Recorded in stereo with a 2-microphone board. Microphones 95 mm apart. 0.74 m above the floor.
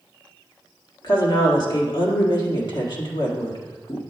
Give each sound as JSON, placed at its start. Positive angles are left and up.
{"t": 1.0, "sound": "a woman speaking", "side_deg": 50, "distance_m": 1.6}